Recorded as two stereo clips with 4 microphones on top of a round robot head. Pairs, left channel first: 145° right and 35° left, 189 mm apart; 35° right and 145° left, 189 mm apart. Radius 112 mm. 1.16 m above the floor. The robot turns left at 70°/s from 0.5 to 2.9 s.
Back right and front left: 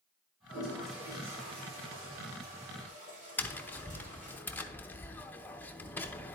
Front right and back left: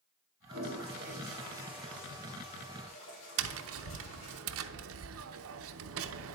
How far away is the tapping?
About 0.7 m.